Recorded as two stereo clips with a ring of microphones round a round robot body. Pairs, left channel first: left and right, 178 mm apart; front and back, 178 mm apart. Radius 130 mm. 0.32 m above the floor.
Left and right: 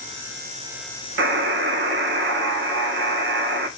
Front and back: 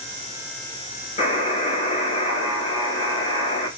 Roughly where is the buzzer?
Right.